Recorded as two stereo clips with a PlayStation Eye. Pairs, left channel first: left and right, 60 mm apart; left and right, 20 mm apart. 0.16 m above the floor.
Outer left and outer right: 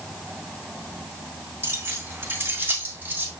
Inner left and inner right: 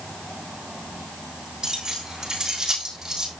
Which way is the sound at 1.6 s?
45° right (ahead or behind).